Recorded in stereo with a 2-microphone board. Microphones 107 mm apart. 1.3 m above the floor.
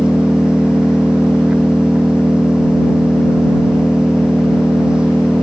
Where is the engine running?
10° right (ahead or behind).